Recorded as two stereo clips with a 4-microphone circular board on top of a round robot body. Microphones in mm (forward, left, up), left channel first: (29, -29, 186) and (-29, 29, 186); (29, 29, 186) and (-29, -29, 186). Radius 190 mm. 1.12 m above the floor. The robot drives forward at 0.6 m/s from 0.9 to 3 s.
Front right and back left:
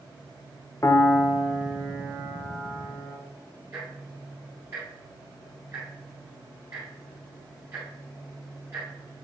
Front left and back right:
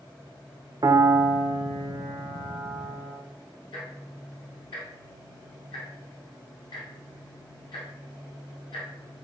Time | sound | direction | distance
0.8 | a piano | 95° right | 0.5 m
3.7 | ticking | 85° left | 0.8 m